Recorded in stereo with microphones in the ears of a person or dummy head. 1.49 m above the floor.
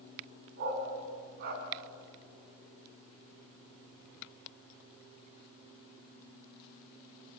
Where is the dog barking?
55° right (ahead or behind), 4 m.